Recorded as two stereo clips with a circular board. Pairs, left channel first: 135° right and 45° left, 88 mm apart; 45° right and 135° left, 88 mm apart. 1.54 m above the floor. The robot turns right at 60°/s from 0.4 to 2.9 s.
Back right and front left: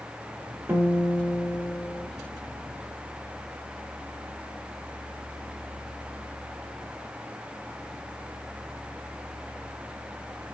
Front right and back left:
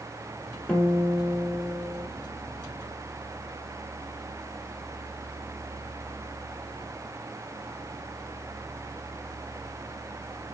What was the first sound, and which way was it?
A guitar, 15° left.